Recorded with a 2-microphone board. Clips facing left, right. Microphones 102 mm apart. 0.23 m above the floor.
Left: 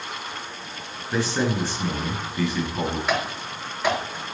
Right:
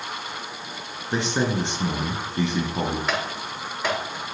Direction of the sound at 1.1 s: 20° right (ahead or behind).